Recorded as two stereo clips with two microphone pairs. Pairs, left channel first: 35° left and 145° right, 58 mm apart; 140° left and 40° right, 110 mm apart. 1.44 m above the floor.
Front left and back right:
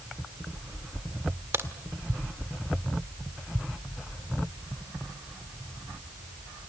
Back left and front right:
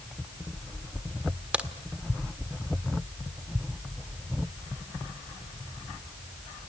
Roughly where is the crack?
Behind right.